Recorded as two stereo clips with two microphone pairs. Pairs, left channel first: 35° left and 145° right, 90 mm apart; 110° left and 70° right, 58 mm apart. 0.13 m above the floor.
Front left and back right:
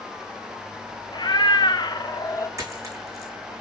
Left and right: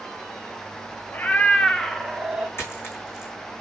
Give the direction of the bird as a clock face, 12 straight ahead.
No bird in this recording.